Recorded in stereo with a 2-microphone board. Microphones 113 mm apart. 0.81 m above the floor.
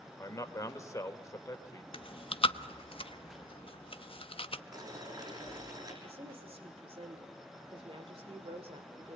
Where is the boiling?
35° right (ahead or behind), 6.5 m.